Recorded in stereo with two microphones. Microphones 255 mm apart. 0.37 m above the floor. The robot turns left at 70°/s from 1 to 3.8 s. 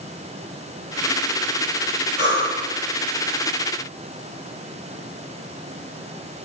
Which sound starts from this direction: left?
Breathing, at 2.2 s.